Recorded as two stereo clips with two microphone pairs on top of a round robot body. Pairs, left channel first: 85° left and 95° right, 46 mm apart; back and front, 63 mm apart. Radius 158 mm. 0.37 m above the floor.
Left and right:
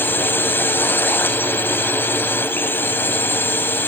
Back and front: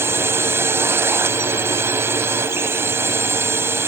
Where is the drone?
50° left.